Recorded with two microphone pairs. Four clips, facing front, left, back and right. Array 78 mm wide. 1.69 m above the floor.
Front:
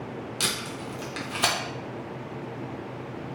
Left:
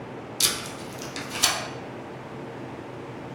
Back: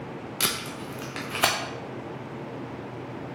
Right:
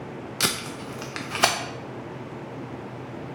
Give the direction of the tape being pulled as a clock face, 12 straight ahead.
4 o'clock.